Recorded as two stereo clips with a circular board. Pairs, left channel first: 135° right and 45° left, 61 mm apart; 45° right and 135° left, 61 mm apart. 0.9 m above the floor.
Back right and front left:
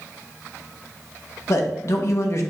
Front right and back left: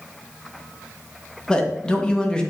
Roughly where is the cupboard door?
No cupboard door in this recording.